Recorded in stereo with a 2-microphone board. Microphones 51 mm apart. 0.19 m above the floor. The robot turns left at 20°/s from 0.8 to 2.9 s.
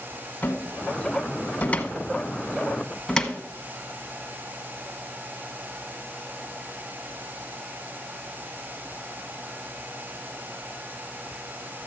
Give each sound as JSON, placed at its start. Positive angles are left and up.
{"t": 0.4, "sound": "a cupboard door", "side_deg": 40, "distance_m": 1.0}